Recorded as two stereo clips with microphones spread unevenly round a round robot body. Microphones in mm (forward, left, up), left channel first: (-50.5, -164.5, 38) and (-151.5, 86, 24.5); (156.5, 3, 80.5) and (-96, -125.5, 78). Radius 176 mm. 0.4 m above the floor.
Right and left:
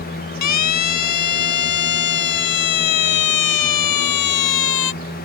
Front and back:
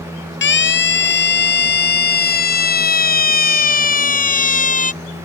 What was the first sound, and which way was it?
A siren, 25° right.